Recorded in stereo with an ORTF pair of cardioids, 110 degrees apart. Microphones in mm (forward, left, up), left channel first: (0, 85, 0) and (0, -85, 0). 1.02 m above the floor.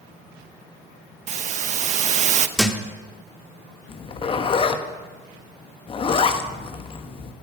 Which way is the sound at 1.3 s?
45° right.